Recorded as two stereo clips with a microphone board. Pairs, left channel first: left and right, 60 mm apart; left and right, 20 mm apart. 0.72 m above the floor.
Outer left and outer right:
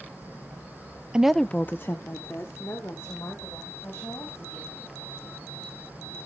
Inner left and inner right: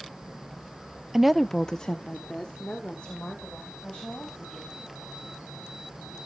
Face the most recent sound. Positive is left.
turn(degrees=40)  # may be behind; listen again after turning